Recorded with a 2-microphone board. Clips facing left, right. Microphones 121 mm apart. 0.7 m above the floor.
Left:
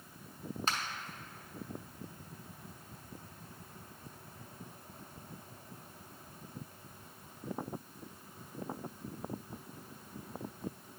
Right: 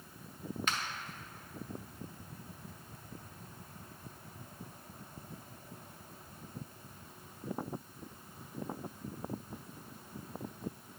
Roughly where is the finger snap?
Left.